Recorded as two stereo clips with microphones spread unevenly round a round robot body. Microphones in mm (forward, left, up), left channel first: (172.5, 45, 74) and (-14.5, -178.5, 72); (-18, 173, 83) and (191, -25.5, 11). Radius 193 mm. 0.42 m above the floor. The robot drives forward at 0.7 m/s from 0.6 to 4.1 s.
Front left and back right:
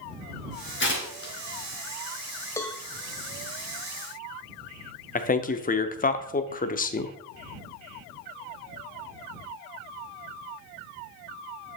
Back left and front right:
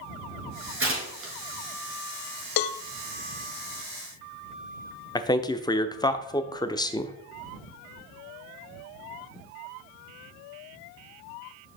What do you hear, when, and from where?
0.8 s tearing paper: straight ahead, 3.5 m
2.6 s a cowbell: 130° left, 0.5 m; by 2.8 s 145° left, 0.7 m
5.2 s a man speaking: 45° left, 0.8 m